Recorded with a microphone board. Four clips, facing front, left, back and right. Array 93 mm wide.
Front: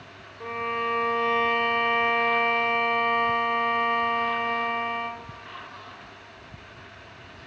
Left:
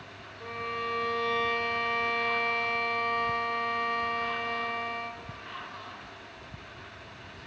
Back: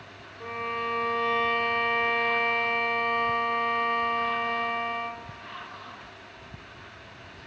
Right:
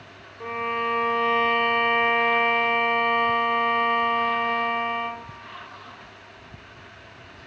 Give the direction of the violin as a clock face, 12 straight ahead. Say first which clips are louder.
Right 8 dB, front 3 dB; 2 o'clock.